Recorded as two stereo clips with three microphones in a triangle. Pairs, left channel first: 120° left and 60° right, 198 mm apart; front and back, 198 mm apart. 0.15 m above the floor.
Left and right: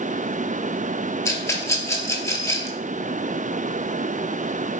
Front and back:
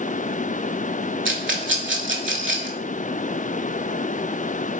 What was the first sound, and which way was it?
A rattle, 165° right.